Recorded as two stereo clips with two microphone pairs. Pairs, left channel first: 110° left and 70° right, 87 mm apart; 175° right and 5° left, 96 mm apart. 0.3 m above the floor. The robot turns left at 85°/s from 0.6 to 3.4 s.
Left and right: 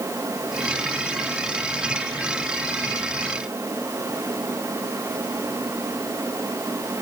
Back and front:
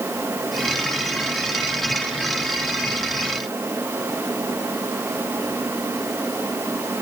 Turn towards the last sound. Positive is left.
No sound to turn to.